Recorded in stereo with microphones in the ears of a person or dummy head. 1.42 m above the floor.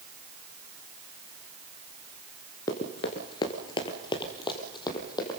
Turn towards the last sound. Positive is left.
turn(degrees=25)  # may be behind; listen again after turning